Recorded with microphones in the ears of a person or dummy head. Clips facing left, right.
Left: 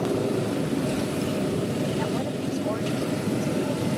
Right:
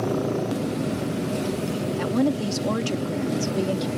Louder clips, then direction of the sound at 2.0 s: Right 5 dB; 60° right (ahead or behind).